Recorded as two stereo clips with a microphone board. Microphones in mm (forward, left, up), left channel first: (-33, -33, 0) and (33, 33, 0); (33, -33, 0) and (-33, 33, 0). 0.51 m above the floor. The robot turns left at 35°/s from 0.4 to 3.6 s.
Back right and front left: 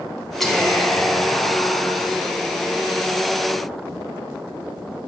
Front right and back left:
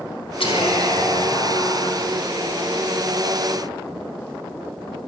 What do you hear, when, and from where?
0.4 s whispering: 50° right, 3.5 m; by 2.0 s 105° right, 3.5 m